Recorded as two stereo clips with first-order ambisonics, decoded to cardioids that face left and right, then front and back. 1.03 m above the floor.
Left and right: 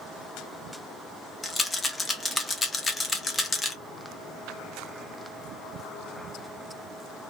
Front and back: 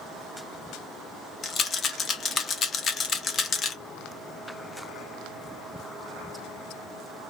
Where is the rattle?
20° left, 0.6 m.